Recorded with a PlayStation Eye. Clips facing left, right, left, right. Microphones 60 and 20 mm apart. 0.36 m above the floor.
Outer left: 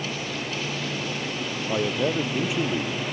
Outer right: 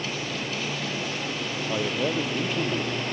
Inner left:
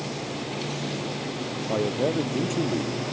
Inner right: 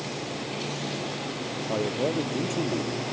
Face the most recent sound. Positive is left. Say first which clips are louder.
# outer left 2 dB, inner left 2 dB
turn(degrees=10)  # may be behind; listen again after turning